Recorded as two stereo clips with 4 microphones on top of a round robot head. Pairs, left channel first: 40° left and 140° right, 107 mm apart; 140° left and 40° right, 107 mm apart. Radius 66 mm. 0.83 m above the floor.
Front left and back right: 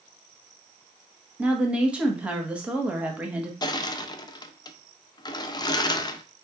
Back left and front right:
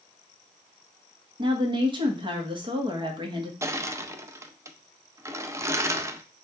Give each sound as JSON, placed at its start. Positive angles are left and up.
{"t": 1.4, "sound": "a woman speaking", "azimuth_deg": -65, "distance_m": 1.2}
{"t": 3.6, "sound": "crushing", "azimuth_deg": 10, "distance_m": 0.6}